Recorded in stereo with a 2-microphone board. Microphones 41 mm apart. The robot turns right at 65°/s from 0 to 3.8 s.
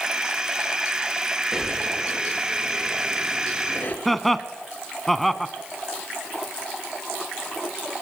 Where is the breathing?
15° right (ahead or behind), 3 m; by 4.0 s 45° left (ahead or behind), 3 m.